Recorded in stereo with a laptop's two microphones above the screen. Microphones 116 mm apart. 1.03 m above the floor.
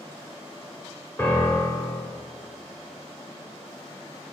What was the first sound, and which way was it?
A piano, 20° left (ahead or behind).